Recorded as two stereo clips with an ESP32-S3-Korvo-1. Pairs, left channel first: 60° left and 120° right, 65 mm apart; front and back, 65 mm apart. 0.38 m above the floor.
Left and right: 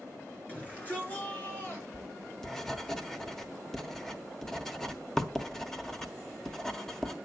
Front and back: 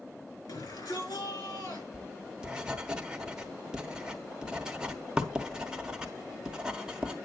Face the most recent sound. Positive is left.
turn(degrees=130)